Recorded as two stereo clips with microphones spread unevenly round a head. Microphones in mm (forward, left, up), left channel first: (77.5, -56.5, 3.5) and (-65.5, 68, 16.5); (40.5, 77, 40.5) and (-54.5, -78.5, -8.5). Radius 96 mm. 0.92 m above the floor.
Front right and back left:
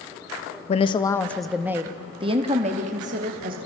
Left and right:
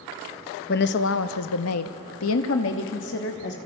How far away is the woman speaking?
About 0.9 m.